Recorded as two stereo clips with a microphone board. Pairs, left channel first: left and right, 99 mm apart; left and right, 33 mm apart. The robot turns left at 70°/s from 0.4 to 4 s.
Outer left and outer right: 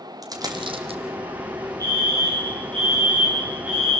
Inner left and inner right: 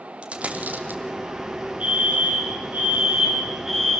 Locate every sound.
0.2 s a dropped coin: 40° right (ahead or behind), 3 m; by 1.0 s 75° right (ahead or behind), 3 m
1.8 s a fire alarm: 35° right, 8.5 m; by 4.0 s 170° left, 8.5 m